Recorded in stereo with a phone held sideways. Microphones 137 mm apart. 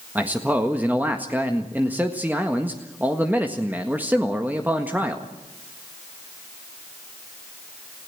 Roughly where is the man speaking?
Centre.